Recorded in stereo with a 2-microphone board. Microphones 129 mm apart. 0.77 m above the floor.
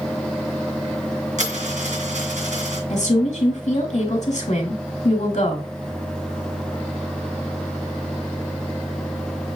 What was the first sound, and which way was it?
A dropped coin, 80° right.